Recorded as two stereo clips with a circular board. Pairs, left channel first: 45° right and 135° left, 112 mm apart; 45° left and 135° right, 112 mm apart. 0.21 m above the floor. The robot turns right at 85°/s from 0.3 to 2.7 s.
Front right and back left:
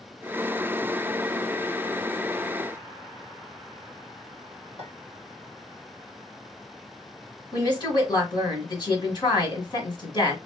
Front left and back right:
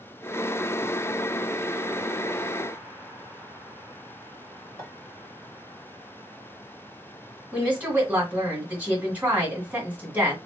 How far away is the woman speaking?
About 1.9 m.